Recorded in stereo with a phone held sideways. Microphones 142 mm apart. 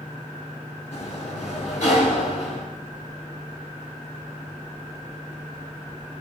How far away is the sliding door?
About 1.6 m.